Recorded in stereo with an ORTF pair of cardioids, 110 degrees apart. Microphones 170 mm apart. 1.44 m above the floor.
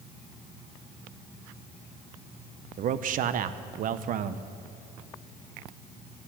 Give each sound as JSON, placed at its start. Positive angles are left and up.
{"t": 2.8, "sound": "a man speaking", "azimuth_deg": -55, "distance_m": 0.8}